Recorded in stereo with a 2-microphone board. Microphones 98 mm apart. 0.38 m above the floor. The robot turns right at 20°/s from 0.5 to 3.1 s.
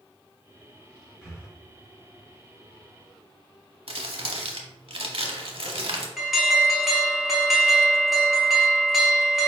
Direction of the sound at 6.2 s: 5° right (ahead or behind).